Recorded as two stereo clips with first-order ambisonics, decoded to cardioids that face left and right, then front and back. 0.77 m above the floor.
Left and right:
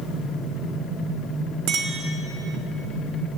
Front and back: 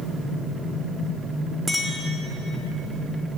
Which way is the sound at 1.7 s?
100° right.